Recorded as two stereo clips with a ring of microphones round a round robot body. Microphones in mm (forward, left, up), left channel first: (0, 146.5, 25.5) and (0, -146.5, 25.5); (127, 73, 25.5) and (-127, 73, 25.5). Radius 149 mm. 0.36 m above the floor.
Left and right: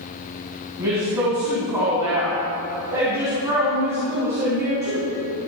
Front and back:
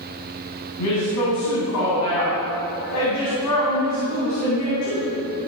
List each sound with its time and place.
0.8 s a woman speaking: 10° right, 3 m